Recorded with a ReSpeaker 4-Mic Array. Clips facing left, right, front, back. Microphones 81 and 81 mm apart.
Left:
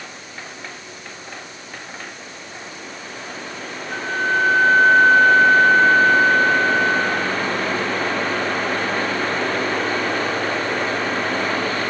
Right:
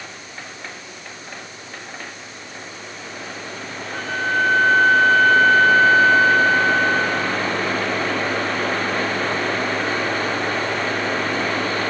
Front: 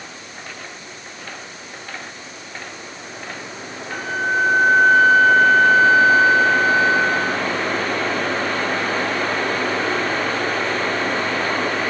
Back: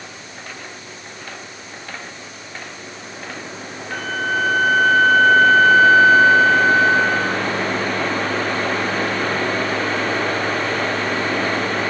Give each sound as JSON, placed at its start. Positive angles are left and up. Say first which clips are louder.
{"t": 3.9, "sound": "a flute", "louder": "left 1 dB, front 1 dB", "azimuth_deg": 130, "distance_m": 6.0}